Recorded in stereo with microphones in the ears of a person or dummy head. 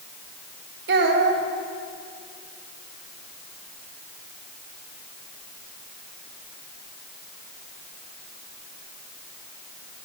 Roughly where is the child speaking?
Right.